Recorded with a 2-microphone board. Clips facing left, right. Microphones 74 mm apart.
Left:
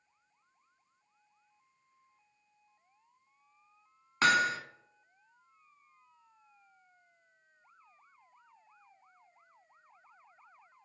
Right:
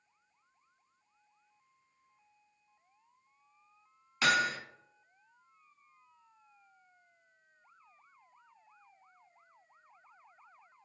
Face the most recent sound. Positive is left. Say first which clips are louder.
# left 2 dB
turn(degrees=40)  # may be behind; listen again after turning